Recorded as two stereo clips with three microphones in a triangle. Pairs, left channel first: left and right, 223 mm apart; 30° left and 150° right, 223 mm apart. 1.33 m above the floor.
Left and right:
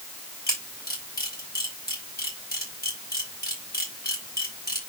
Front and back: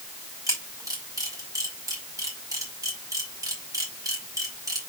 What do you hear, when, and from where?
0.5 s a camera shutter: 135° left, 5.5 m